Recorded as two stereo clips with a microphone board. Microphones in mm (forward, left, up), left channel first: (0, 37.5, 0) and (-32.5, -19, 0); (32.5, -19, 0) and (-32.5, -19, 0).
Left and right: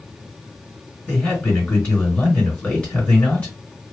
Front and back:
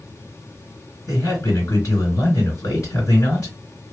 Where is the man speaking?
10° right, 2.5 m.